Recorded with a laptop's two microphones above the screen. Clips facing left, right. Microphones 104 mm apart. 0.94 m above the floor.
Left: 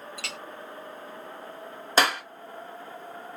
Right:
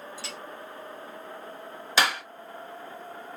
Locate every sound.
0.2 s a clink: 65° left (ahead or behind), 0.5 m
2.0 s a clap: 45° left (ahead or behind), 2 m